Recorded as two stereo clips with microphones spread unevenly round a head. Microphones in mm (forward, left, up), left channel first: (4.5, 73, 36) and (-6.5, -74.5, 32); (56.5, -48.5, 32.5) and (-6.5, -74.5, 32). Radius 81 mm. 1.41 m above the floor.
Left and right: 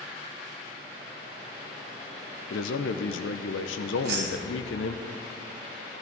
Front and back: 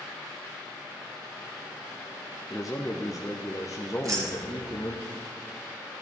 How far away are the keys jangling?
About 3 m.